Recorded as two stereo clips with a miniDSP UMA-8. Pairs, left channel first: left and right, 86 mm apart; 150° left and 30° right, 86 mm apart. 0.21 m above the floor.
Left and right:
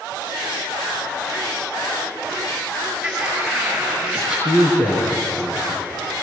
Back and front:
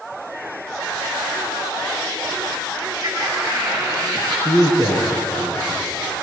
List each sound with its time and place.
3.0 s laughter: 5° right, 4 m
4.5 s a man speaking: 80° left, 4 m